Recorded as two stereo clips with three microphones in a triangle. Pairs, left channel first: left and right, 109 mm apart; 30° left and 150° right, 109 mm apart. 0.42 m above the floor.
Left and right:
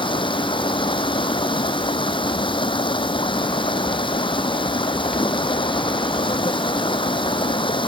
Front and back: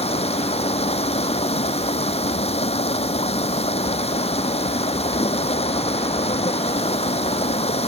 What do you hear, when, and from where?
0.0 s running water: 50° left